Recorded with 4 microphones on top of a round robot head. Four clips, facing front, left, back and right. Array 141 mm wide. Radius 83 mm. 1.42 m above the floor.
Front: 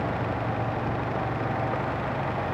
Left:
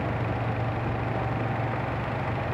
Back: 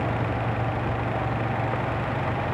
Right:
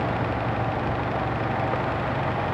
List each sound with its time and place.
Only background noise.